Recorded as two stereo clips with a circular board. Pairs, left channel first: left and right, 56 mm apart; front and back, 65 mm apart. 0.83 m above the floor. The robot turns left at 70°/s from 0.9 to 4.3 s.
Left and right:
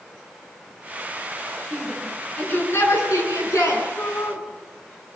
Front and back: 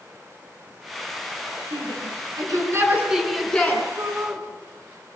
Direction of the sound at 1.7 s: 155° right.